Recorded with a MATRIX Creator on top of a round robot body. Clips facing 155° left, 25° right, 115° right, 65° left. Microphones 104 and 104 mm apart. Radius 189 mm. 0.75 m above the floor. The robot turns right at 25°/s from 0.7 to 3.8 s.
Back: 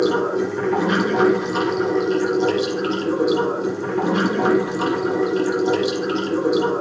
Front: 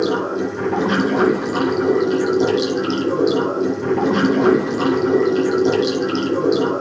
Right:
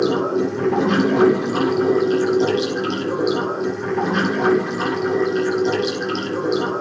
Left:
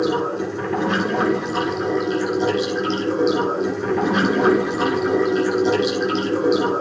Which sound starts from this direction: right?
Running water, at 0.0 s.